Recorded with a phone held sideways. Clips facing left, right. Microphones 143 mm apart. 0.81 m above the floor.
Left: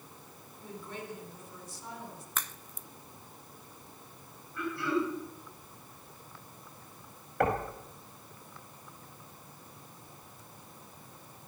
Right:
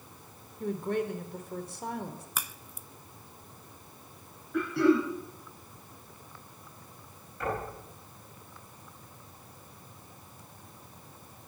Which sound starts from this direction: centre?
A crack, at 2.4 s.